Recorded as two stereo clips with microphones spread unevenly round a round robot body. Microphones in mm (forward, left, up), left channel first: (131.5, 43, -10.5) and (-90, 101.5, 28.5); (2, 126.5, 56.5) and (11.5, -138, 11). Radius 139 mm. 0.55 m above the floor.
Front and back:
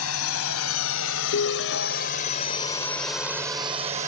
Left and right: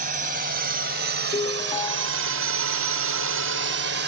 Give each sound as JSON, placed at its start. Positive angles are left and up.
{"t": 0.0, "sound": "a drone", "azimuth_deg": -30}
{"t": 1.3, "sound": "a ringtone", "azimuth_deg": 15}